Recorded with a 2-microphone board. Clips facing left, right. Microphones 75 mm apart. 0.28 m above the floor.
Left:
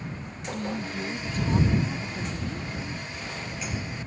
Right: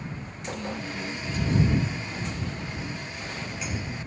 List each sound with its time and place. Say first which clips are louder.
0.5 s a woman speaking: left 2 dB; 45° left (ahead or behind)